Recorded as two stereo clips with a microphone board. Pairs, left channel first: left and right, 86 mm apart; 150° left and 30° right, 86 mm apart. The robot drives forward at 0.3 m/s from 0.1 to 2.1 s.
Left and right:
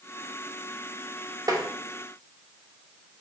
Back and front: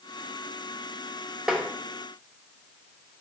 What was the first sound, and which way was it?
Tapping, 110° right.